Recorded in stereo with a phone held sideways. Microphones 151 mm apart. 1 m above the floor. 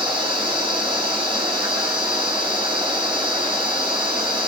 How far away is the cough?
I don't hear a cough.